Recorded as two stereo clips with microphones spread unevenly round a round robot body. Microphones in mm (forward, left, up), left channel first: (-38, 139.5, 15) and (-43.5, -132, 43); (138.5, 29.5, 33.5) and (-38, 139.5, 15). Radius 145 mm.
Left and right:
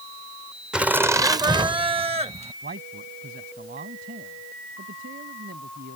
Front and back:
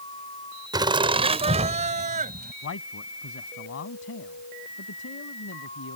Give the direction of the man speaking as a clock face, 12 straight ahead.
1 o'clock.